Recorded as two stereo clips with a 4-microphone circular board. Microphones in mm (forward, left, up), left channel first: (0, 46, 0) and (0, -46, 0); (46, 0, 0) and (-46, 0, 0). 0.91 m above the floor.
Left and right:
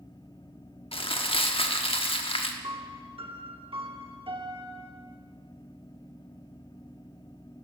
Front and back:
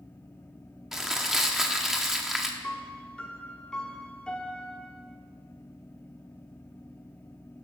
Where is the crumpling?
95° left, 0.9 m.